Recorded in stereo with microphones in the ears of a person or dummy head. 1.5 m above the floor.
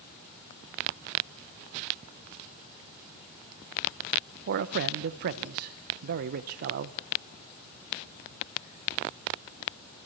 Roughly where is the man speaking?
Right.